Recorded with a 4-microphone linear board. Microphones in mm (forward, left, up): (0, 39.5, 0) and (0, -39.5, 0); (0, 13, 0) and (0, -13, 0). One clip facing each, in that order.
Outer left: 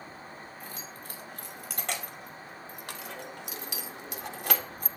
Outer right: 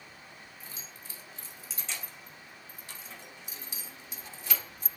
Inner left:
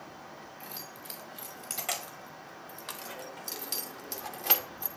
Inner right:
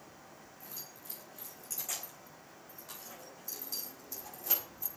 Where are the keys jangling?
60° left (ahead or behind), 6 m; by 4.9 s 55° left (ahead or behind), 2.5 m.